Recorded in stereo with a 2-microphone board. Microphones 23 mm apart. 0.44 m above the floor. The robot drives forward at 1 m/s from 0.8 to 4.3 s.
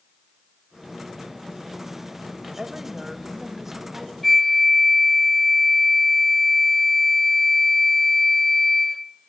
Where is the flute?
5° left (ahead or behind), 0.7 m.